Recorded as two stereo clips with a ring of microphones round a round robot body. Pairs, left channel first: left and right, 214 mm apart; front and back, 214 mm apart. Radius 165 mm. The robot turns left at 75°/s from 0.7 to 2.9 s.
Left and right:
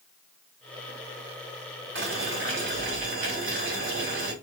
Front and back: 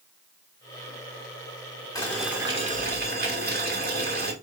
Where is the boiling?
70° right, 2.5 m; by 4.3 s 145° right, 2.5 m.